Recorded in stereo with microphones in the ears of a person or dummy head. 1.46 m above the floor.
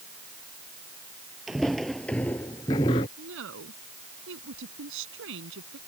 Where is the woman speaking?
80° right.